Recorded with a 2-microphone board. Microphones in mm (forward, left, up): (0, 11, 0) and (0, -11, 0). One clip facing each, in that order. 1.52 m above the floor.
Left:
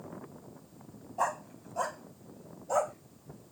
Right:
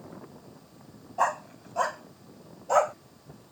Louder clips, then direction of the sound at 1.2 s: Right 5 dB; 20° right (ahead or behind).